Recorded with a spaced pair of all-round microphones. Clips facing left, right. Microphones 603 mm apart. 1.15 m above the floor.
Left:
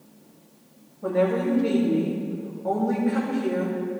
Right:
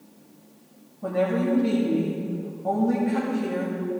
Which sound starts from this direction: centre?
A woman speaking, at 1.0 s.